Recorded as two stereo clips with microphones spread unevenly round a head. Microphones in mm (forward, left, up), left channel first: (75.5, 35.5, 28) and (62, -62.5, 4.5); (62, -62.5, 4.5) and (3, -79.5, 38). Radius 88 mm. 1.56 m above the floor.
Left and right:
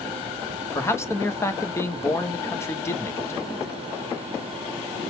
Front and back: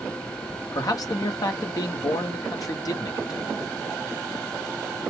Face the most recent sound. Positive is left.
turn(degrees=15)